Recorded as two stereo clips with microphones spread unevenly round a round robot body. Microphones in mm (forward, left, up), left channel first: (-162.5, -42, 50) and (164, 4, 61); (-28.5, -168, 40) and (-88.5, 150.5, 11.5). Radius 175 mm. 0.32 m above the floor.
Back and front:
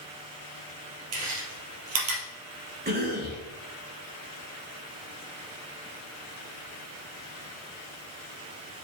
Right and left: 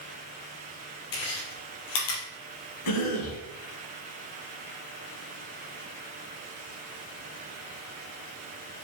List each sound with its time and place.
1.1 s chewing: 40° right, 3 m
2.9 s a cough: 50° right, 3 m